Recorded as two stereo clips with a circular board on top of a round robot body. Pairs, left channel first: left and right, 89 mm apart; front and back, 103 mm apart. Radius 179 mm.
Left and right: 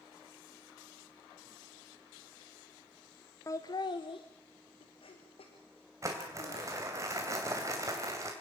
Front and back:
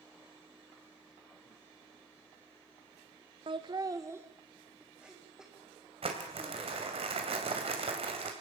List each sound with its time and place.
3.5 s laughter: 145° left, 1.0 m; by 6.7 s 90° left, 4 m
6.0 s crumpling: 150° right, 2.5 m